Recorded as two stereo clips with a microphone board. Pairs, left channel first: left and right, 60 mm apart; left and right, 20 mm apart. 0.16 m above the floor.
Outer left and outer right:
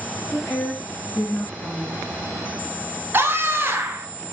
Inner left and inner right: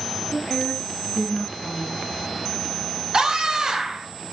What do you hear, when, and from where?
0.3 s a woman speaking: 60° left (ahead or behind), 3 m
3.1 s a scream: 35° right (ahead or behind), 1.5 m